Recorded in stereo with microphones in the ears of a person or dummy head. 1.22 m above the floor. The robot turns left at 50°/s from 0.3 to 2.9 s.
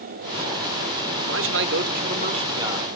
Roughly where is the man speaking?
Right.